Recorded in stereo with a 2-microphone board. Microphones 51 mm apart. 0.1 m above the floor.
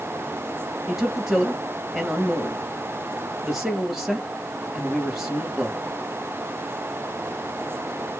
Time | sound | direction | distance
0.9 | a man speaking | centre (ahead or behind) | 1.7 m